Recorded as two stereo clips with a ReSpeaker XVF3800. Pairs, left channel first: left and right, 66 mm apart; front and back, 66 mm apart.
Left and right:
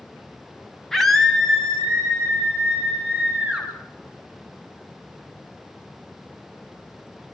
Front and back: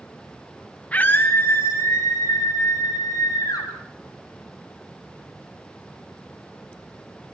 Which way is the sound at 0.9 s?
10° left.